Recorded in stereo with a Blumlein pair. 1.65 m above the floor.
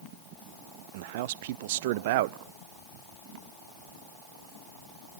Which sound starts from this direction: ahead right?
A man speaking, at 0.9 s.